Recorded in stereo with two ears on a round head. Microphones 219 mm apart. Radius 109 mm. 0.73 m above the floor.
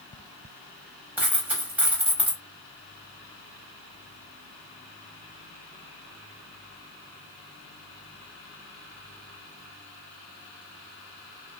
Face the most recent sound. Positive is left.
turn(degrees=-5)  # may be behind; listen again after turning